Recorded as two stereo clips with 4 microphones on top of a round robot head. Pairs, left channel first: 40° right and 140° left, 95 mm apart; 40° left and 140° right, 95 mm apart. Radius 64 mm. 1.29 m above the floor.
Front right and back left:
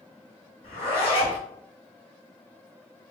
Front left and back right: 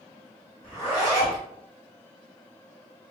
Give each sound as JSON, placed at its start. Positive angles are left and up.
{"t": 0.6, "sound": "a zipper", "azimuth_deg": -65, "distance_m": 1.9}